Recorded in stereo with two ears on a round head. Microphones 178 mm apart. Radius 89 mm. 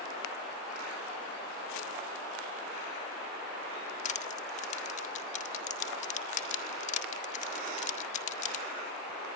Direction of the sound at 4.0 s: 35° left (ahead or behind).